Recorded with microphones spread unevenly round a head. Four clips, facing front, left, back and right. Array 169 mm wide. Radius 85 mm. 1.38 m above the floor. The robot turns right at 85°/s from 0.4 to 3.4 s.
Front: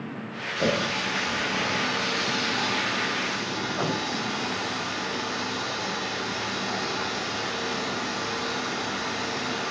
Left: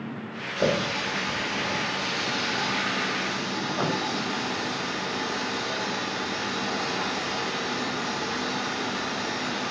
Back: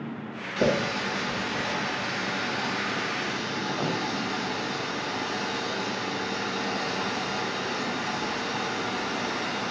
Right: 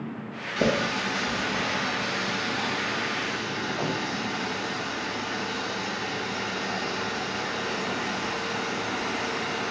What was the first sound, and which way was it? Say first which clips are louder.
A running tap: even, back 1 dB; 125° right.